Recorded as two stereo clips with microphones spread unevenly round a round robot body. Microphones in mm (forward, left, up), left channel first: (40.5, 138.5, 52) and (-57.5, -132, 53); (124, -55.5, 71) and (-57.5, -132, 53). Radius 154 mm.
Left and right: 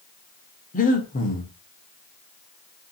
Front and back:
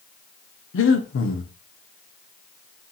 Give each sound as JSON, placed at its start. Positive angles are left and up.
{"t": 0.7, "sound": "breathing", "azimuth_deg": 5, "distance_m": 0.8}